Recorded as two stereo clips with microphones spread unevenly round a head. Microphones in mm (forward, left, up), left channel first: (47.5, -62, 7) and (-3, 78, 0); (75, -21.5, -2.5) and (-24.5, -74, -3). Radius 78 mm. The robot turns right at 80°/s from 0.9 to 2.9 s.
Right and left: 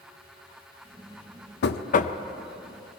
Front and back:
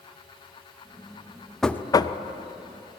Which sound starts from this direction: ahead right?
Knocking, at 1.6 s.